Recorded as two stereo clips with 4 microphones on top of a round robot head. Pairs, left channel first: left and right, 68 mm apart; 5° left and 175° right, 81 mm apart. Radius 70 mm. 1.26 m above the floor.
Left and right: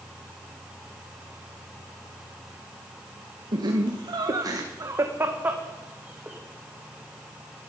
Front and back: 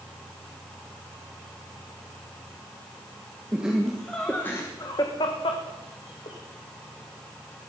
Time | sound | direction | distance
3.5 | laughter | 95° right | 1.7 m